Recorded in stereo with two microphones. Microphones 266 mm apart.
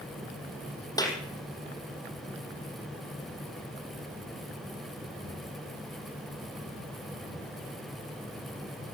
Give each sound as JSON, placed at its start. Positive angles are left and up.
{"t": 1.0, "sound": "a clap", "side_deg": 15, "distance_m": 5.0}